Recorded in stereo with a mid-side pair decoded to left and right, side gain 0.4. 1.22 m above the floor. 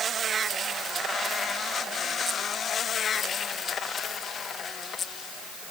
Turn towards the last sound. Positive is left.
No sound to turn to.